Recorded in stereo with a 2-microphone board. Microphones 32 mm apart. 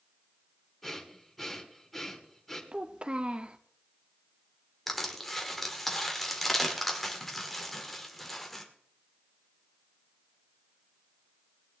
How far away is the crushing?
About 1.7 m.